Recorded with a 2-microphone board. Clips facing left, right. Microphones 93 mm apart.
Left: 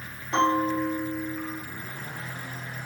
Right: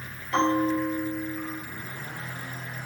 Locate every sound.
0.3 s a bell: 20° left (ahead or behind), 1.3 m